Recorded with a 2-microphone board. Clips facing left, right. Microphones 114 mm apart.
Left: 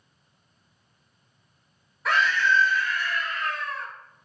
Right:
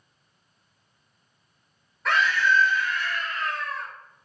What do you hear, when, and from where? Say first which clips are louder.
2.0 s a scream: even; 5° left (ahead or behind), 1.0 m; by 3.9 s 45° right (ahead or behind), 1.5 m